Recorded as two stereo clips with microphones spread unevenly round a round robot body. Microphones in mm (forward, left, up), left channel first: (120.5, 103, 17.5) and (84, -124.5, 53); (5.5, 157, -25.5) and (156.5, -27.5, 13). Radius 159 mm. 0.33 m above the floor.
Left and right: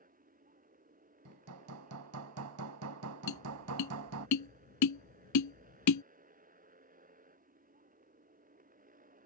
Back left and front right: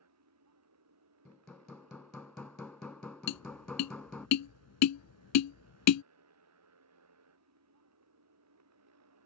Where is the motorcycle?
45° right.